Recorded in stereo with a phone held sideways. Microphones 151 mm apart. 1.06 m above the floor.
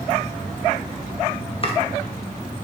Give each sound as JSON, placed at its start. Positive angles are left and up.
{"t": 1.6, "sound": "chopping", "side_deg": 40, "distance_m": 0.5}